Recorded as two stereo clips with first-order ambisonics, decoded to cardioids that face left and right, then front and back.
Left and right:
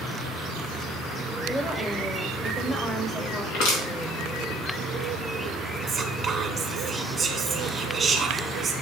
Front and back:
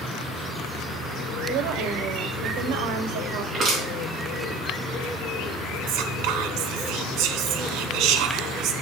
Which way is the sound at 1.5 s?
165° left.